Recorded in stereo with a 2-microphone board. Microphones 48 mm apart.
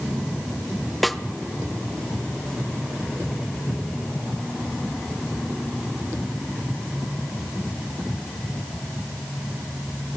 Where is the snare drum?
Centre (ahead or behind), 0.9 m.